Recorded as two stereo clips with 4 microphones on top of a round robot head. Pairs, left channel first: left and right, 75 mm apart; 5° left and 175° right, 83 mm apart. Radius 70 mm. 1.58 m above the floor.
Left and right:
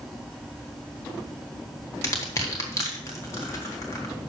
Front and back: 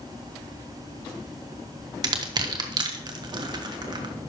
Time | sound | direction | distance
2.0 | crushing | 150° left | 1.3 m